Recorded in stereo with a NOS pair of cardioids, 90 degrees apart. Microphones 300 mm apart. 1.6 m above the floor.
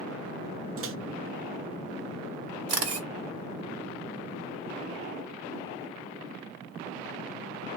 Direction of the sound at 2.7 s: 55° right.